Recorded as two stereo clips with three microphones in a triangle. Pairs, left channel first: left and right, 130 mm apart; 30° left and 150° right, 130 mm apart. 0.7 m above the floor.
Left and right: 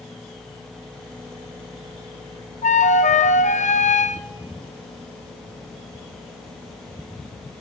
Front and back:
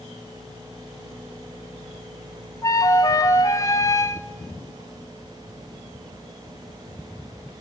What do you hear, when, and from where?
2.6 s a flute: 90° left, 0.5 m